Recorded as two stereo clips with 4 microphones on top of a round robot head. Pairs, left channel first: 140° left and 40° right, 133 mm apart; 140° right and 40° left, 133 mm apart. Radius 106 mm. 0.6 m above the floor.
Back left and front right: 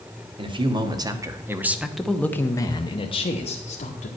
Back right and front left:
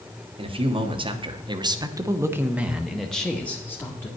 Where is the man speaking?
Straight ahead, 1.7 m; by 4.1 s 150° left, 1.7 m.